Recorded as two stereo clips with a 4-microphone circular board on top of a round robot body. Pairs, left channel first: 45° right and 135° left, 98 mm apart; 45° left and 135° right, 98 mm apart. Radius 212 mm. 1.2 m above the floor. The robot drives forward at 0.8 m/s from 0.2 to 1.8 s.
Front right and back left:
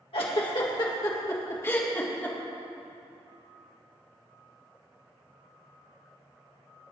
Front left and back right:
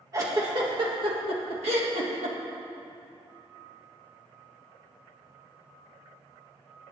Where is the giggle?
75° right, 1.9 m; by 2.4 s 115° right, 2 m.